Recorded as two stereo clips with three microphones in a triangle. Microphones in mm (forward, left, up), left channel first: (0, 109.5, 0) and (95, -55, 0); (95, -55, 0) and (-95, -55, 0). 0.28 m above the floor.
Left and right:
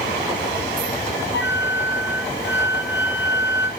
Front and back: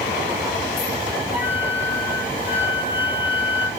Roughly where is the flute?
Left.